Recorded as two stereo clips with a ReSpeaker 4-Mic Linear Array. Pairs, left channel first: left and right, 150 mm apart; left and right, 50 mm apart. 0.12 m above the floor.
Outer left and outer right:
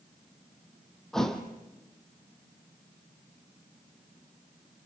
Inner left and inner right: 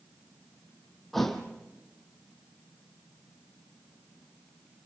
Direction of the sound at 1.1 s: Centre (ahead or behind).